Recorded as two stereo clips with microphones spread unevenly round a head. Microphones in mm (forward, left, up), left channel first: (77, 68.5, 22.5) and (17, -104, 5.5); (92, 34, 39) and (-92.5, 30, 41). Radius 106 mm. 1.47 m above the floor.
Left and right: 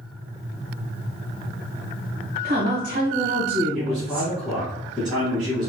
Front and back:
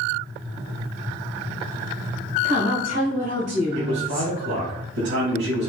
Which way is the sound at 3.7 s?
160° left.